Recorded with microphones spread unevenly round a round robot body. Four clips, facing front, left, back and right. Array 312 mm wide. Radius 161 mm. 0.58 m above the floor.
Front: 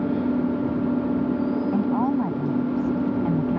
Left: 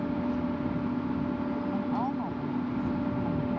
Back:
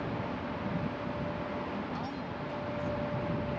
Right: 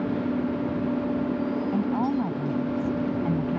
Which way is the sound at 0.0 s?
10° right.